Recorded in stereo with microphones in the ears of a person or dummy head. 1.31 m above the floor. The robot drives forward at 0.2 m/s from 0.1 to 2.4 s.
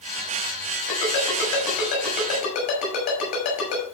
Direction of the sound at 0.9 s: 50° left (ahead or behind).